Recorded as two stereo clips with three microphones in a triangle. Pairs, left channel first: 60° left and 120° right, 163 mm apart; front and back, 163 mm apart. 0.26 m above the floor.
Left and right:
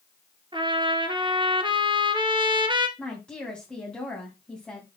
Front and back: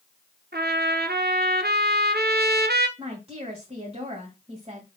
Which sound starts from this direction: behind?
A trumpet, at 0.5 s.